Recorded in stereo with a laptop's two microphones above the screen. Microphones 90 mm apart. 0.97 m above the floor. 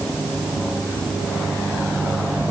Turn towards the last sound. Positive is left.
No sound to turn to.